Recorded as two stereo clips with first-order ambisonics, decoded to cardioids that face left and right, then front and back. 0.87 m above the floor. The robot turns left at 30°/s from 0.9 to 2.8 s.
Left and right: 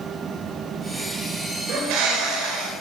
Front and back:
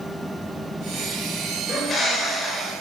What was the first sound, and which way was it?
A bird, 60° right.